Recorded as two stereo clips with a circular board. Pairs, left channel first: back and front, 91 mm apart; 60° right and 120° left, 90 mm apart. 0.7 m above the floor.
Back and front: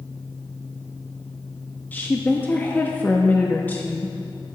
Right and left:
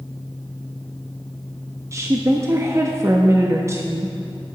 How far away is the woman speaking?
About 0.5 m.